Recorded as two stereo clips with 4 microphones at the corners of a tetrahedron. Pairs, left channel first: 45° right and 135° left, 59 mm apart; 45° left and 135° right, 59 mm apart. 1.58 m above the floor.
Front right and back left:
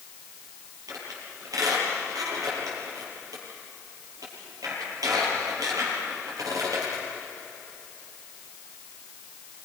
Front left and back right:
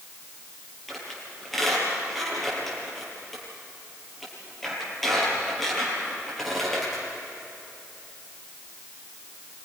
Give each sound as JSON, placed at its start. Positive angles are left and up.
{"t": 0.9, "sound": "a squeak", "azimuth_deg": 130, "distance_m": 8.5}